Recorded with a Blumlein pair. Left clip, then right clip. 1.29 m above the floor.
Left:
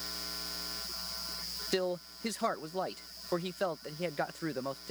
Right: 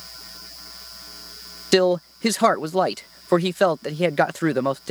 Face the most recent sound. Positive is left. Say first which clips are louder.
# right 16 dB
turn(degrees=-55)